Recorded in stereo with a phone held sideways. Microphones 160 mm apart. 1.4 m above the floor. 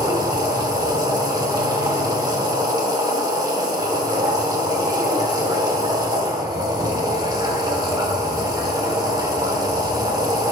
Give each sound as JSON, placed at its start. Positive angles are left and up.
{"t": 0.0, "sound": "a machine running", "side_deg": -25, "distance_m": 1.1}